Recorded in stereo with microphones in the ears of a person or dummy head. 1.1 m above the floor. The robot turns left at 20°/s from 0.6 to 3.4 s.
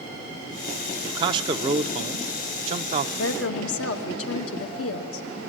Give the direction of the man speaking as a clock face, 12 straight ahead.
2 o'clock.